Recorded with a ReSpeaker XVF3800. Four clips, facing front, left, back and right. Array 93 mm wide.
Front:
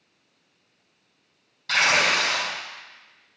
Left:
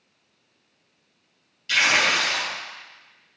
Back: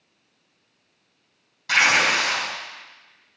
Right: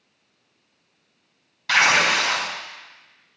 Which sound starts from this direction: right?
Tearing paper, at 1.7 s.